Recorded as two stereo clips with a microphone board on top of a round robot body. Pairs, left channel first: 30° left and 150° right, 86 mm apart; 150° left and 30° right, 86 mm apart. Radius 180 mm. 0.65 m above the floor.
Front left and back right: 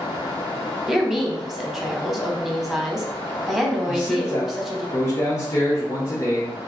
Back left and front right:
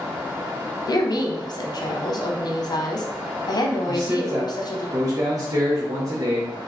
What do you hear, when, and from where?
0.9 s a woman speaking: 125° left, 0.8 m
3.9 s a man speaking: 15° right, 1.1 m